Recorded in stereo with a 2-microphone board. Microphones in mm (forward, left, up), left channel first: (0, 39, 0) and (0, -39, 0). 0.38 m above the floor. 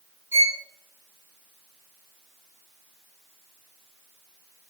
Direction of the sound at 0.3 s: 30° right (ahead or behind).